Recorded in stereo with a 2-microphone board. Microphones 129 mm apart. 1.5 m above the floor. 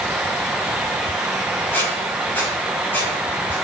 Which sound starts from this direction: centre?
A squeak, at 1.7 s.